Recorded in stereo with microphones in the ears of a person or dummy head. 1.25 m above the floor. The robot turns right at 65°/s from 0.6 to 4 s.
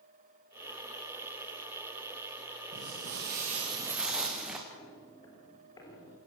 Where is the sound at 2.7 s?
80° right, 7 m; by 4.6 s 5° right (ahead or behind), 5.5 m.